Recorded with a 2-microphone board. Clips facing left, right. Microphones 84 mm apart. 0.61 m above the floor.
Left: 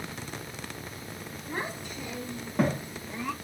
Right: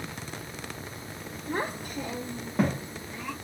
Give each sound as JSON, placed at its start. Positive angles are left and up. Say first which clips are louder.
{"t": 1.5, "sound": "a child speaking", "louder": "right 4 dB", "side_deg": -60, "distance_m": 1.1}